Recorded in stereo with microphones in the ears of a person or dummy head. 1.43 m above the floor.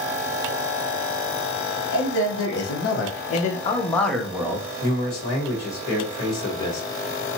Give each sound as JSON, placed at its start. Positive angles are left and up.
{"t": 1.9, "sound": "a man speaking", "side_deg": 80, "distance_m": 1.0}
{"t": 4.8, "sound": "a man speaking", "side_deg": 50, "distance_m": 1.2}